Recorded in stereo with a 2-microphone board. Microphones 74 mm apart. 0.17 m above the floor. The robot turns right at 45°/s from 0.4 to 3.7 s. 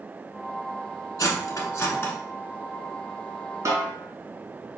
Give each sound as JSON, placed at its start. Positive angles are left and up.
{"t": 1.2, "sound": "cutlery clinking", "side_deg": 50, "distance_m": 1.1}
{"t": 3.6, "sound": "a snare drum", "side_deg": -45, "distance_m": 1.7}